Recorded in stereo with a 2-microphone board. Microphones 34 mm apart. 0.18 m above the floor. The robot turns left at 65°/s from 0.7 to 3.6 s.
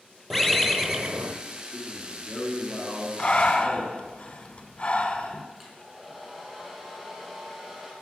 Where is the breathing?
25° left (ahead or behind), 0.6 m; by 5.5 s 30° left (ahead or behind), 0.6 m.